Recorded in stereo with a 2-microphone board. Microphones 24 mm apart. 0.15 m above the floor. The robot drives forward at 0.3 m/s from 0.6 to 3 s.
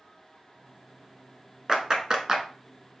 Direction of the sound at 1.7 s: 30° right (ahead or behind).